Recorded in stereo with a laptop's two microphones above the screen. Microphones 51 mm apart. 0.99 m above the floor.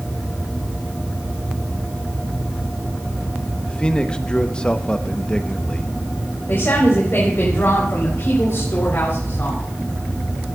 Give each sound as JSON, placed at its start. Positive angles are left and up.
{"t": 3.7, "sound": "a man speaking", "side_deg": 20, "distance_m": 0.9}
{"t": 6.5, "sound": "a woman speaking", "side_deg": 50, "distance_m": 4.0}